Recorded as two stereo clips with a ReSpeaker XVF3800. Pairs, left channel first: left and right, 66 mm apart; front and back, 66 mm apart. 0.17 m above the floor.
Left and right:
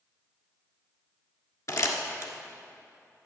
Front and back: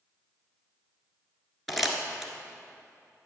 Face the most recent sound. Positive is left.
turn(degrees=90)